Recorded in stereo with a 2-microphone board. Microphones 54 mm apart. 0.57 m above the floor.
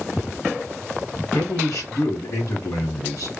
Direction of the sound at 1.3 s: 80° left.